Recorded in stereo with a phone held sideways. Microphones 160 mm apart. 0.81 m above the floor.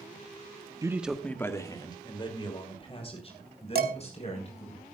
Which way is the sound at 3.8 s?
75° right (ahead or behind).